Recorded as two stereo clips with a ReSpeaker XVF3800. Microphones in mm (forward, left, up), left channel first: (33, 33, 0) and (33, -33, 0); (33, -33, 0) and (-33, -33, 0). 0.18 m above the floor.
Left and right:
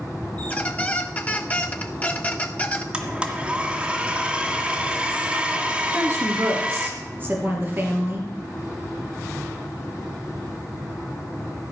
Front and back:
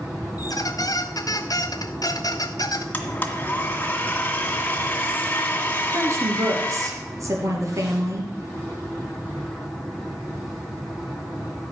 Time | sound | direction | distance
0.4 | a squeak | 20° left | 0.9 m
2.9 | a blender | 35° right | 1.8 m
5.9 | a woman speaking | 145° right | 3.5 m